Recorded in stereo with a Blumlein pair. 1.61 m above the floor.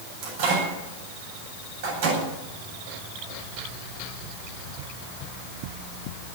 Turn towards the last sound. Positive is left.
turn(degrees=-50)